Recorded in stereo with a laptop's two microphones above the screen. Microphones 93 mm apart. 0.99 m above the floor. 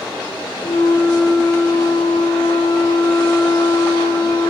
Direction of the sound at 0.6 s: 40° left (ahead or behind).